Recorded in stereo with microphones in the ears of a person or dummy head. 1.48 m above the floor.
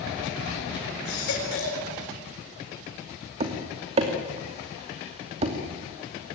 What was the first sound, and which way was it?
A baby crying, 60° left (ahead or behind).